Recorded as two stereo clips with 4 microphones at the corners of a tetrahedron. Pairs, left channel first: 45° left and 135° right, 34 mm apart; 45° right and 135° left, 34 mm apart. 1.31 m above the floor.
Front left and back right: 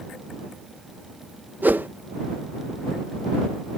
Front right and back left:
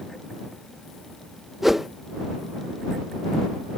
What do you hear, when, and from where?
1.6 s a whoosh: 145° right